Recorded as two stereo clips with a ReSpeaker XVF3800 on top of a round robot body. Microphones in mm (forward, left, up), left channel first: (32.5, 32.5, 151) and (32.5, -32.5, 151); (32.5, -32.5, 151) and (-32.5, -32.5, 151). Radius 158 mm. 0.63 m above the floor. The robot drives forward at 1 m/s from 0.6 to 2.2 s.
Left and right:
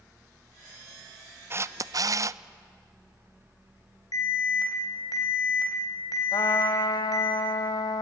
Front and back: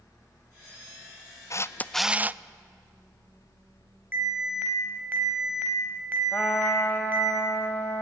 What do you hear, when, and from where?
1.5 s a camera shutter: 40° right, 0.7 m; by 2.4 s 115° right, 0.6 m
4.1 s an alarm: 115° left, 3.5 m
6.3 s a trumpet: 70° left, 0.6 m